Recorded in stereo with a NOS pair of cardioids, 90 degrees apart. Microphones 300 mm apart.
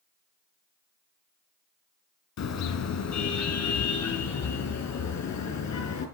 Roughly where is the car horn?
Ahead left.